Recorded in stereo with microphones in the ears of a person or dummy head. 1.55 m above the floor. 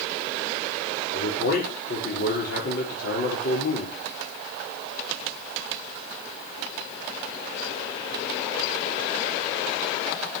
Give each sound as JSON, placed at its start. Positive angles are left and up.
{"t": 1.1, "sound": "a man speaking", "side_deg": 65, "distance_m": 5.0}